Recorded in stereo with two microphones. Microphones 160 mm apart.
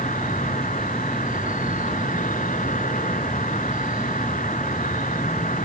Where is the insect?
60° left (ahead or behind).